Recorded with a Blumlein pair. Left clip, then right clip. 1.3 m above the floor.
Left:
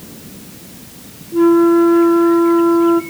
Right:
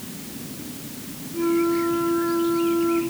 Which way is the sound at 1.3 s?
35° left.